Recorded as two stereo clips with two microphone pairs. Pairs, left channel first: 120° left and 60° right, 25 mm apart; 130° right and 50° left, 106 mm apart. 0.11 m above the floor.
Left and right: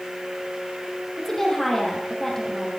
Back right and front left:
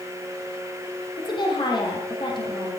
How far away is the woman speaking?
About 4 m.